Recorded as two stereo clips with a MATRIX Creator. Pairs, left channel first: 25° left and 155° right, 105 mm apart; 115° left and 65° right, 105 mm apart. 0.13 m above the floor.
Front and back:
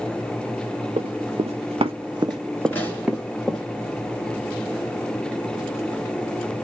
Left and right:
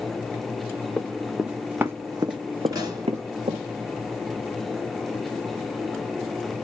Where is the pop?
40° right, 1.9 m.